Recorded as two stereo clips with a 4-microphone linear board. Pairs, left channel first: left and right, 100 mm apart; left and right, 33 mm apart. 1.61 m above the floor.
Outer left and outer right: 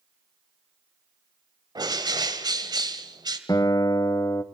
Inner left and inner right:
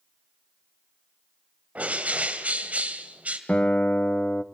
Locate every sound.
1.8 s a bird: 45° right (ahead or behind), 2 m
3.5 s a guitar: 40° left (ahead or behind), 0.9 m